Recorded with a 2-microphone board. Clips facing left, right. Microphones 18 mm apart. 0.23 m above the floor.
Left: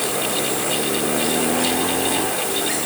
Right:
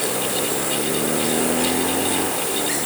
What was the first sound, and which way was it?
Only background noise.